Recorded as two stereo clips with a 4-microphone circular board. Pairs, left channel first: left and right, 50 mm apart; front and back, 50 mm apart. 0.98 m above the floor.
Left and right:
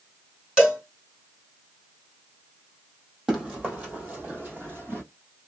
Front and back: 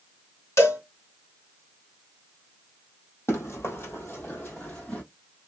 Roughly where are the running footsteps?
Ahead.